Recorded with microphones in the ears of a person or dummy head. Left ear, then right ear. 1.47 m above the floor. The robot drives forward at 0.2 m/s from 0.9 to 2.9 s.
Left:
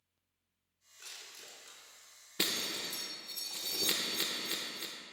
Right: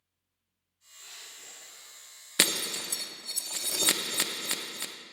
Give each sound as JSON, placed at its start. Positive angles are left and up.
{"t": 1.0, "sound": "crushing", "side_deg": 70, "distance_m": 3.5}
{"t": 2.4, "sound": "breaking glass", "side_deg": -45, "distance_m": 0.7}